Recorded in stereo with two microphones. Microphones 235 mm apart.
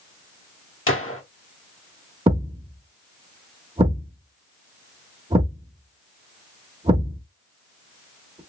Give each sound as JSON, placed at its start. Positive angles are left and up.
{"t": 0.9, "sound": "a gunshot", "side_deg": 65, "distance_m": 1.2}
{"t": 2.3, "sound": "a thud", "side_deg": -25, "distance_m": 0.9}